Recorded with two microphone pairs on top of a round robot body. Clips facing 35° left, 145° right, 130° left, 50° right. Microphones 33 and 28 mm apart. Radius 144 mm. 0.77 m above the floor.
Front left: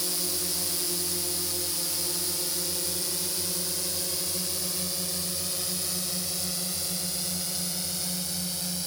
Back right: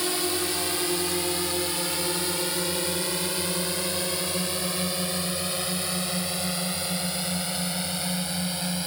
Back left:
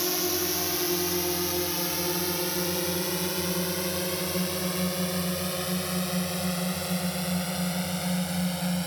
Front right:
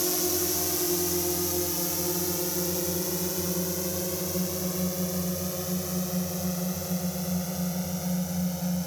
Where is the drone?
170° right; by 8.9 s 165° left.